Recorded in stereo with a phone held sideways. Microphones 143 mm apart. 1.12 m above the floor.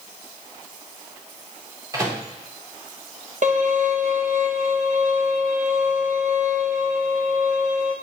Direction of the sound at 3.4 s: 60° right (ahead or behind).